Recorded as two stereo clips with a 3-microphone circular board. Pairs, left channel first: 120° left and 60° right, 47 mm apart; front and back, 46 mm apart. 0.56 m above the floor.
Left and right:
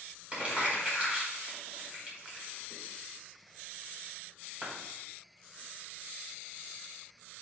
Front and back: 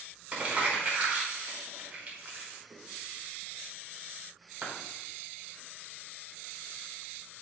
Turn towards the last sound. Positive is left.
turn(degrees=-120)